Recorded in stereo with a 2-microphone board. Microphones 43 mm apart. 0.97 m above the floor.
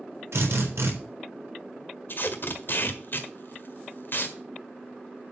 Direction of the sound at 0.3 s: 80° right.